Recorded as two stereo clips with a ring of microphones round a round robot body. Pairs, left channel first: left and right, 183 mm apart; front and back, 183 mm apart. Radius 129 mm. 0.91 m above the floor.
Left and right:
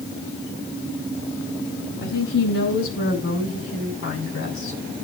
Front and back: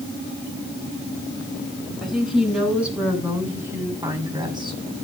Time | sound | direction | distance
2.0 | a woman speaking | 90° left | 8 m